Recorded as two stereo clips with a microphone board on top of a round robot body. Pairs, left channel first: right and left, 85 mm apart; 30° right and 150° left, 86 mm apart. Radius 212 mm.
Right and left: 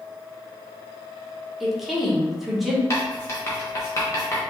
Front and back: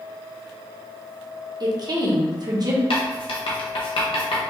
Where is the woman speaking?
Straight behind, 1.4 m.